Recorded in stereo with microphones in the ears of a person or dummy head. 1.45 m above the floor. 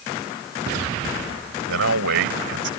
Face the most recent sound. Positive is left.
turn(degrees=-65)  # may be behind; listen again after turning